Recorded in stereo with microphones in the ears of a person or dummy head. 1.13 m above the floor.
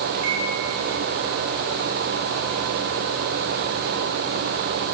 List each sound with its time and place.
0.1 s a microwave: 50° right (ahead or behind), 5.5 m